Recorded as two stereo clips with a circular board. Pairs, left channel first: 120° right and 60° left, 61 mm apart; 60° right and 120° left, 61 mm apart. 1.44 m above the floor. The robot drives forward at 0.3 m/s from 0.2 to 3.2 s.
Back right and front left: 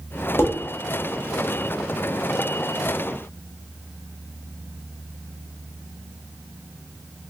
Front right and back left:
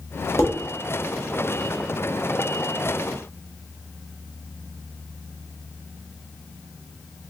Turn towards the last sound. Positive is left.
turn(degrees=-125)